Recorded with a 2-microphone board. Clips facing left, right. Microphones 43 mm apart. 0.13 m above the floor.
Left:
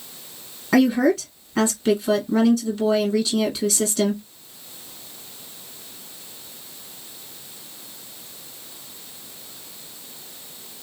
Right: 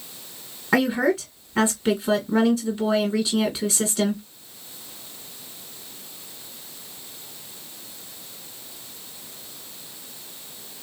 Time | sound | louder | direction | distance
0.7 | a woman speaking | left 3 dB | 20° right (ahead or behind) | 1.5 m